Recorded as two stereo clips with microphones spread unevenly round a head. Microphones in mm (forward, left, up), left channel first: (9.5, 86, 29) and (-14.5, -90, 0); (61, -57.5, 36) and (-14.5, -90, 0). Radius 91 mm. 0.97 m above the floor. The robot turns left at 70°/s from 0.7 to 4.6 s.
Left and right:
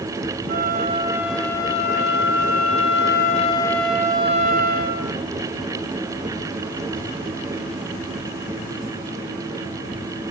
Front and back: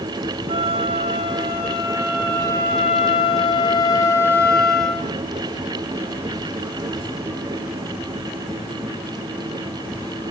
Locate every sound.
0.5 s a flute: 145° right, 2.5 m; by 5.1 s 55° right, 2.5 m